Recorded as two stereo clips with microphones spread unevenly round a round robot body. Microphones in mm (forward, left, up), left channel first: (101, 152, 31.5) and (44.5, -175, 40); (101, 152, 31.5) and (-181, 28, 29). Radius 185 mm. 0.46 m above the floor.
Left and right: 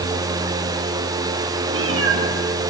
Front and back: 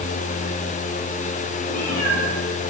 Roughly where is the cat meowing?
Ahead right.